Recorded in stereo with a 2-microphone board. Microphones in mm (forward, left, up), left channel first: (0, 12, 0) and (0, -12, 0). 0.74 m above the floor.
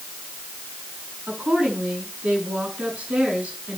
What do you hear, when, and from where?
1.3 s a woman speaking: 65° right (ahead or behind), 8.5 m